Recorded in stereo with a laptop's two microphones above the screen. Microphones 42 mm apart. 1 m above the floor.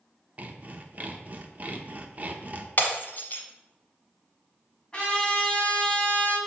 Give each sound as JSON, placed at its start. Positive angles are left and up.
{"t": 0.4, "sound": "sawing", "side_deg": -40, "distance_m": 0.6}
{"t": 2.8, "sound": "breaking glass", "side_deg": 45, "distance_m": 1.2}
{"t": 4.9, "sound": "a trumpet", "side_deg": 20, "distance_m": 1.9}